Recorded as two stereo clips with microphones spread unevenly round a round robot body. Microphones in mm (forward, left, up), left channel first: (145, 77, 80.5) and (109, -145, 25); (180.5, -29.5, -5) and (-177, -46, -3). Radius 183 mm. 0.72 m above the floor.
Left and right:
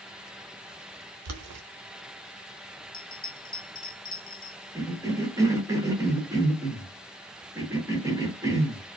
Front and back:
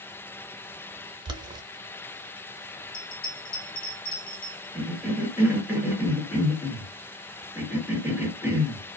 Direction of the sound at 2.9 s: 25° left.